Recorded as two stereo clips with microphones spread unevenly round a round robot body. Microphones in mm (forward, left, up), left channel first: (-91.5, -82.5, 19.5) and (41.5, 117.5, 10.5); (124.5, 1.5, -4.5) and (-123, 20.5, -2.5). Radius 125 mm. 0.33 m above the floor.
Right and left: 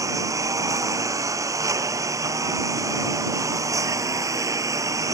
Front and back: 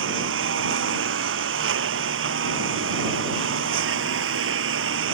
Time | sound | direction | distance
0.0 | a lawn mower | 135° left | ?